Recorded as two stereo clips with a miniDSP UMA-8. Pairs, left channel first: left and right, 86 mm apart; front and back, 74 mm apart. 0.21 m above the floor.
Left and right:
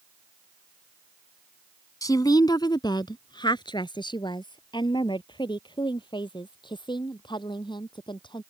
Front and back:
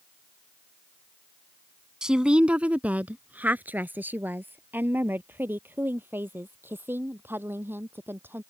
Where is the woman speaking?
100° left; by 8.4 s 120° left.